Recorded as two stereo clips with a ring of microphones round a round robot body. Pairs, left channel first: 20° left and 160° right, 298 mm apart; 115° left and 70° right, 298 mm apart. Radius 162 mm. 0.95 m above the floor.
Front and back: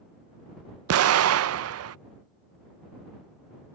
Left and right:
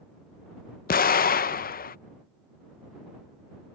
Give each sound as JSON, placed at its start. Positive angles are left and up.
{"t": 0.9, "sound": "an explosion", "azimuth_deg": 170}